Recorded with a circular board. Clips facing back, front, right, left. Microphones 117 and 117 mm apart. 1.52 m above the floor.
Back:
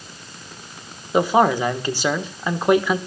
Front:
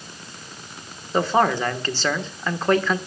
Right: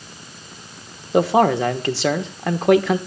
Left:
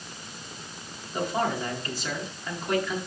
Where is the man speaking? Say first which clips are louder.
Back 3 dB, right 12 dB; 105° right, 1.4 m.